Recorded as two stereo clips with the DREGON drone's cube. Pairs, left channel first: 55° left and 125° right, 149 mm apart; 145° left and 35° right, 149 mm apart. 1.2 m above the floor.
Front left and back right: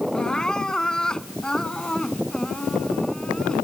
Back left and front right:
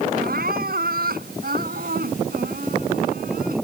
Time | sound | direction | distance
0.1 | crying | 30° right | ?